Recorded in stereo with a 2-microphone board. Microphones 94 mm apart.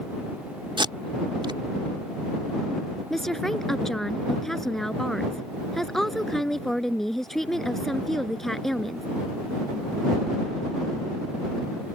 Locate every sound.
0.8 s tape being pulled: 70° right (ahead or behind)
3.1 s a woman speaking: 5° left (ahead or behind)